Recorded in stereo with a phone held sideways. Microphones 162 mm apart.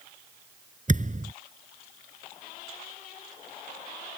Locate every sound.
0.9 s a thud: 50° right (ahead or behind)